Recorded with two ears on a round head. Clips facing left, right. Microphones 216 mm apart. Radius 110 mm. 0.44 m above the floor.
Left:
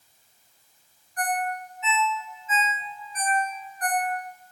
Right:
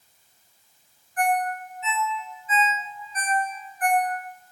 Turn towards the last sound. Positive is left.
turn(degrees=-30)  # may be behind; listen again after turning